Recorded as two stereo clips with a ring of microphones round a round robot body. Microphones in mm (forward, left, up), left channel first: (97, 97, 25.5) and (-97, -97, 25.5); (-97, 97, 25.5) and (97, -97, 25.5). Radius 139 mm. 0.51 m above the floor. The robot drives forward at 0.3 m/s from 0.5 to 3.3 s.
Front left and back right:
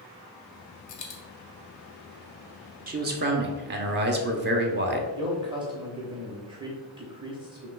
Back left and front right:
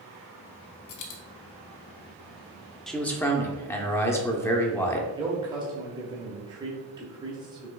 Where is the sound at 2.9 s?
140° right, 0.7 m; by 5.1 s 150° right, 0.8 m.